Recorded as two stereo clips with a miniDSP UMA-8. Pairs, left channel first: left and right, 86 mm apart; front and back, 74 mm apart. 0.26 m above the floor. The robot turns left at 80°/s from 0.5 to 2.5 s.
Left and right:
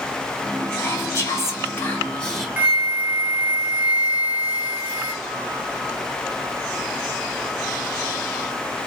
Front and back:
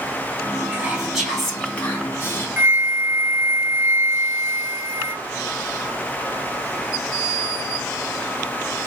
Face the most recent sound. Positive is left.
turn(degrees=-150)